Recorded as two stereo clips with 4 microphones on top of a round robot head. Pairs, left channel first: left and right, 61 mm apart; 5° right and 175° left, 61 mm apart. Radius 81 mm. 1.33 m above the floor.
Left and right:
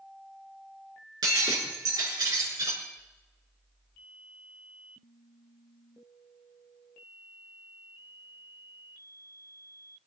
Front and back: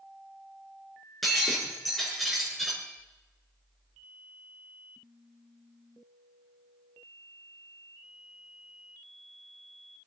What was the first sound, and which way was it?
Breaking glass, 95° right.